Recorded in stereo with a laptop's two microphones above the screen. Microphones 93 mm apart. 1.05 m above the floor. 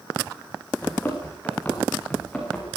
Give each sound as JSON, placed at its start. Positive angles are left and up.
{"t": 0.8, "sound": "running footsteps", "side_deg": 20, "distance_m": 6.5}